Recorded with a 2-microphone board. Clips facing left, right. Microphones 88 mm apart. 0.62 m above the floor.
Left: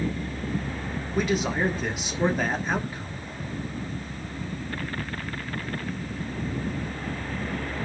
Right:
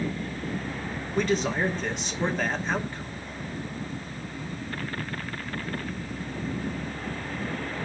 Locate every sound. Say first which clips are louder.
1.1 s a man speaking: even; 5° left (ahead or behind), 1.7 m